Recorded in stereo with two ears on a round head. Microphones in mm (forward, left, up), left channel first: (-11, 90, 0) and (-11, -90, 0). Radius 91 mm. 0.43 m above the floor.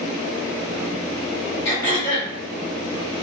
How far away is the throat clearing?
About 1.5 m.